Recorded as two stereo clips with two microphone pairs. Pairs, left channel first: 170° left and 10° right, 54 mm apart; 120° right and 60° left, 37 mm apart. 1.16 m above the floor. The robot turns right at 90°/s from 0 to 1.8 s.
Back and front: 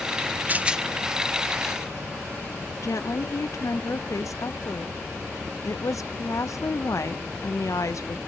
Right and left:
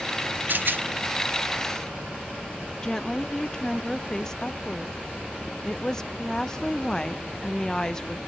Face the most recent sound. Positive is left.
turn(degrees=165)